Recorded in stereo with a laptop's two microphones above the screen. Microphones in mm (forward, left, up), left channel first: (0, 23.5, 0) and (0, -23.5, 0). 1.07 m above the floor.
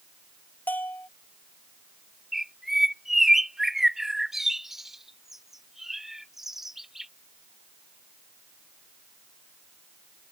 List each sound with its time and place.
0.7 s a bell: 40° left (ahead or behind)
2.3 s a bird: 10° right (ahead or behind)